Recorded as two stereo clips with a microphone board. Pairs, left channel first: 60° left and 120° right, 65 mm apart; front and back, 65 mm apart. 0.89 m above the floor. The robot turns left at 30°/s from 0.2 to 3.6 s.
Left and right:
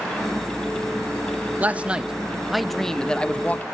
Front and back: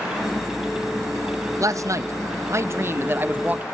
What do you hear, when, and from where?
1.6 s a man speaking: straight behind, 0.7 m; by 3.6 s 120° left, 0.7 m